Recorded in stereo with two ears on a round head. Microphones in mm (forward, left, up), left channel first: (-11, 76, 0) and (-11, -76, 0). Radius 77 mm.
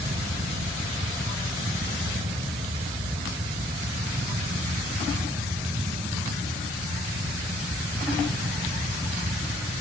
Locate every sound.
Only background noise.